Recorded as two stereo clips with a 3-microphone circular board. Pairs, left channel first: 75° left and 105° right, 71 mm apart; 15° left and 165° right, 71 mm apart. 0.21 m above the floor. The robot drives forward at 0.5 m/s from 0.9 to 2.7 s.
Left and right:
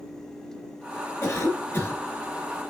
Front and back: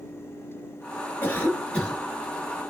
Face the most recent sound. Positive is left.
turn(degrees=115)